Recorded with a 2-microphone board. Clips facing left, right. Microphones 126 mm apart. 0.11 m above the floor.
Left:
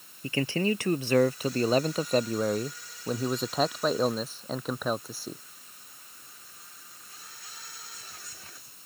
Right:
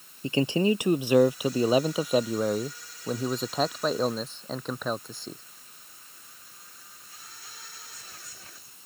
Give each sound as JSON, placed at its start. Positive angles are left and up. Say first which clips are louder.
{"t": 0.2, "sound": "a man speaking", "louder": "right 4 dB", "side_deg": -20}